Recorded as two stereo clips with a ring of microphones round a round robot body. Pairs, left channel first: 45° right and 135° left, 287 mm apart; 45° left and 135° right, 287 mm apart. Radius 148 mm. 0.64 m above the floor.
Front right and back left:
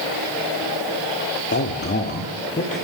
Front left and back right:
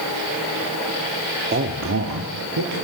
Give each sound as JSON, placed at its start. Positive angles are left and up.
{"t": 1.5, "sound": "a man speaking", "azimuth_deg": -85, "distance_m": 1.4}